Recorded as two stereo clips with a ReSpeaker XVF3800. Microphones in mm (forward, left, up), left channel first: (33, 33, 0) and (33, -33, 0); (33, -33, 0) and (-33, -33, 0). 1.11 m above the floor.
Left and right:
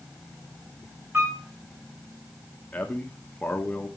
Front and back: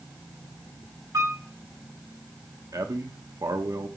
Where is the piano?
145° right, 4 m.